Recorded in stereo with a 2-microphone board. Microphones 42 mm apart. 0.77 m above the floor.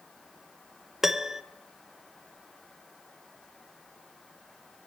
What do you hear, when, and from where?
1.0 s a piano: 10° right (ahead or behind), 0.8 m